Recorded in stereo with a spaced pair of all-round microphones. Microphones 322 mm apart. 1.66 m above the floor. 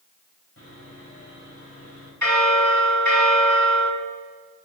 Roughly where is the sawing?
Left.